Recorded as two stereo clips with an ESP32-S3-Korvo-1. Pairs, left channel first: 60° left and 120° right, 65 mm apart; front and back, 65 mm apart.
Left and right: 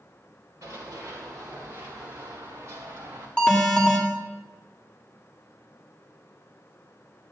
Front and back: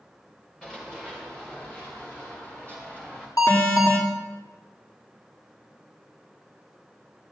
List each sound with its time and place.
0.6 s running footsteps: 80° right, 7 m; by 3.3 s 65° right, 7.5 m
3.4 s an alarm: 15° right, 2.5 m